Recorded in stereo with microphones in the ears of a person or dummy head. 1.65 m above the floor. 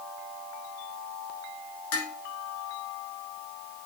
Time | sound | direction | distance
1.9 | dishes clattering | 75° left (ahead or behind) | 3 m